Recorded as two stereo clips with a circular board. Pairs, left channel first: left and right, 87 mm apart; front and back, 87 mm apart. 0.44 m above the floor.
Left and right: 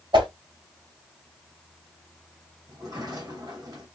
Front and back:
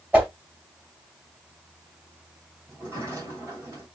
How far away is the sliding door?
About 3 m.